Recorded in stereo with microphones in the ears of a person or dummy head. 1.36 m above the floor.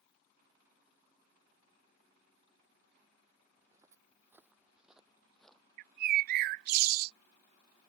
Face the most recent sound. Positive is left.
turn(degrees=-55)  # may be behind; listen again after turning